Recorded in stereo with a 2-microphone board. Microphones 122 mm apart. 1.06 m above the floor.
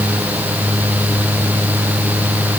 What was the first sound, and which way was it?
Only background noise.